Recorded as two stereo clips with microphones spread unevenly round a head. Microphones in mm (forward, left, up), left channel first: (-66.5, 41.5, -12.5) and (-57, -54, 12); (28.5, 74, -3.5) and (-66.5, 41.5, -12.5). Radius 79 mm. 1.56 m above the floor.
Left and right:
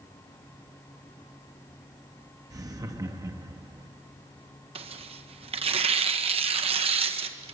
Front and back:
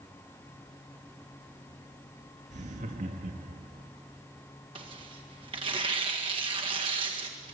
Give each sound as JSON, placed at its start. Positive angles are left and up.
{"t": 2.5, "sound": "laughter", "azimuth_deg": -135, "distance_m": 2.5}
{"t": 4.8, "sound": "tearing paper", "azimuth_deg": -100, "distance_m": 1.7}